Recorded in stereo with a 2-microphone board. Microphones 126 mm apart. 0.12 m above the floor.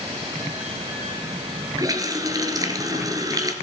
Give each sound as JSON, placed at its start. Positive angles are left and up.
{"t": 1.8, "sound": "a running tap", "side_deg": -30, "distance_m": 1.3}